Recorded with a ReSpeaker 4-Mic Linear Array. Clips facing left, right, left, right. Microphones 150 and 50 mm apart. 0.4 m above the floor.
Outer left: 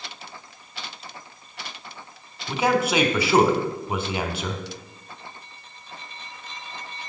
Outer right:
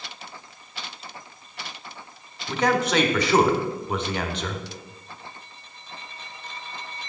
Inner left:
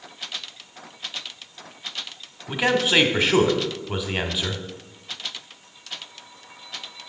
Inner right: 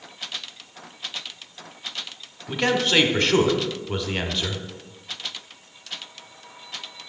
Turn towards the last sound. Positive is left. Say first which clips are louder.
# outer left 1 dB, inner left 1 dB
turn(degrees=10)  # may be behind; listen again after turning